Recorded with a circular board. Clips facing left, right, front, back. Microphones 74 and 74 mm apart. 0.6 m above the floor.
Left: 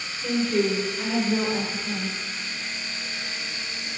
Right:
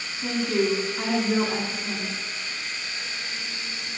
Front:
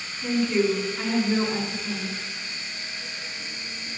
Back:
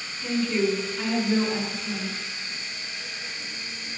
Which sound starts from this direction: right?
A woman speaking, at 0.2 s.